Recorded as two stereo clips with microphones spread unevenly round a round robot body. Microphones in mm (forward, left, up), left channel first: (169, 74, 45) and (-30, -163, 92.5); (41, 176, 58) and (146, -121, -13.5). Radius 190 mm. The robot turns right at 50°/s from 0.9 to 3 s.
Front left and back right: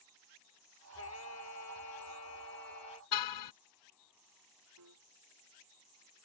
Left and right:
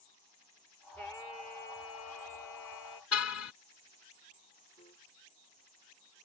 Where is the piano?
175° right.